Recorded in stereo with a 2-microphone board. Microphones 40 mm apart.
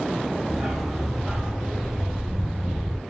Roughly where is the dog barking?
Centre.